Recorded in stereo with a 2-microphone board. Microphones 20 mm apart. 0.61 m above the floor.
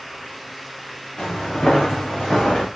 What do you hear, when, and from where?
1.2 s footsteps: 75° left (ahead or behind), 5 m; by 2.7 s 70° left (ahead or behind), 4 m